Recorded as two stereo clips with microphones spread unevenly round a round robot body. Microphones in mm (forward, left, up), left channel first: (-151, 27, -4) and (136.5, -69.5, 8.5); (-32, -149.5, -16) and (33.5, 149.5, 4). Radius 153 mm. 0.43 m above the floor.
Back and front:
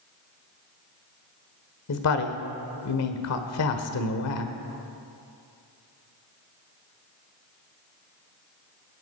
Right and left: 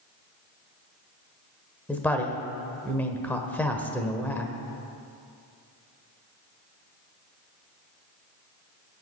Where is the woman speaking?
175° left, 1.2 m.